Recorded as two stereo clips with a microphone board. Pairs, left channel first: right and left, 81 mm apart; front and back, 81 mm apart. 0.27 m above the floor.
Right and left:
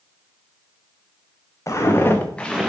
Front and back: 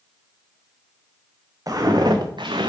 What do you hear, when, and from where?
1.7 s footsteps: 140° right, 2 m; by 2.7 s 170° left, 1.1 m